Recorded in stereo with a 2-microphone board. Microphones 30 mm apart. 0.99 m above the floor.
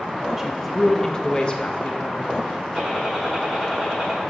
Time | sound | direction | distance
0.4 | a woman speaking | 10° right (ahead or behind) | 0.7 m
2.8 | a gunshot | 20° right (ahead or behind) | 4.5 m